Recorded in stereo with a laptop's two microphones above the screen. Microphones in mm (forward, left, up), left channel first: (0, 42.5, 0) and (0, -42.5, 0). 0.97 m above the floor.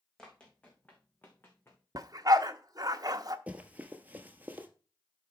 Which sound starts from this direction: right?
A dog barking, at 1.9 s.